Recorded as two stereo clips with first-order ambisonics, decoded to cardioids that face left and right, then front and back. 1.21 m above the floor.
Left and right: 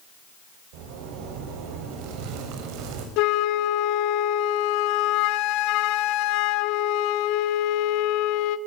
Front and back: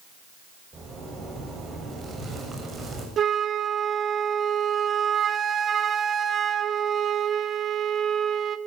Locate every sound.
0.7 s a zipper: 105° right, 7 m
3.2 s a flute: 115° left, 1.5 m